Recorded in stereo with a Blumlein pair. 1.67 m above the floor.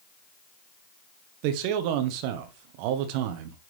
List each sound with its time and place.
1.4 s a man speaking: 45° right, 1.6 m